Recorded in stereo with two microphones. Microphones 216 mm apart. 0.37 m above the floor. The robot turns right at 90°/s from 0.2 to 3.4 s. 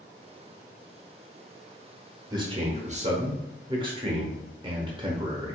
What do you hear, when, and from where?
2.3 s a man speaking: 145° right, 0.9 m; by 5.5 s 45° right, 0.9 m